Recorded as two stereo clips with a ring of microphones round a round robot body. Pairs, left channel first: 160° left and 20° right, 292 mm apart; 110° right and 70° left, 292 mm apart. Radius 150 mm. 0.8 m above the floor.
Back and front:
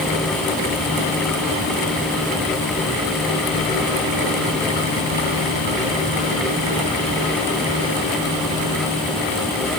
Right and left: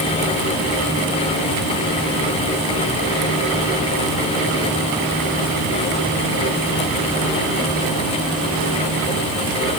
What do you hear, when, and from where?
Only background noise.